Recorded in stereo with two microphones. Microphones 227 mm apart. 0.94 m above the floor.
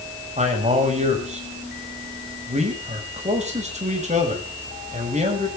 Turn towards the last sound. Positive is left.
turn(degrees=-30)  # may be behind; listen again after turning